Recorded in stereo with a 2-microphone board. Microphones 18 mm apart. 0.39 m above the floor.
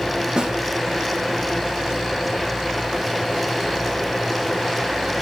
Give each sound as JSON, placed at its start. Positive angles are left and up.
{"t": 0.4, "sound": "a snare drum", "side_deg": -50, "distance_m": 4.5}